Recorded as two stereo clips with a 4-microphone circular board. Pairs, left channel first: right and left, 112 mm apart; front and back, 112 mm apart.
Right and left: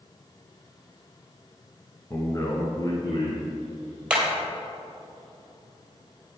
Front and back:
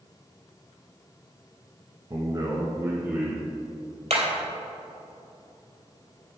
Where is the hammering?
170° left, 3 m.